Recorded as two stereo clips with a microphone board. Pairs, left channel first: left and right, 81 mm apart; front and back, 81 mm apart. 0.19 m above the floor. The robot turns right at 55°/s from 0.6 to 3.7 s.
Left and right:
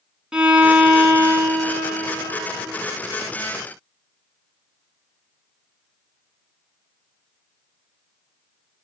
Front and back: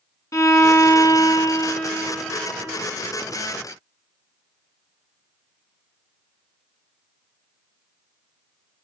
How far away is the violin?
About 1.2 m.